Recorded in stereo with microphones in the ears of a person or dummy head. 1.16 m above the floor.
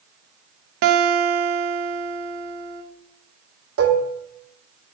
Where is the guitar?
60° right (ahead or behind), 0.8 m.